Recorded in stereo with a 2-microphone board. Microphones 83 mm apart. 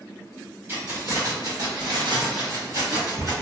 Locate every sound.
0.7 s keys jangling: 30° right (ahead or behind), 1.0 m; by 3.3 s 45° right (ahead or behind), 1.3 m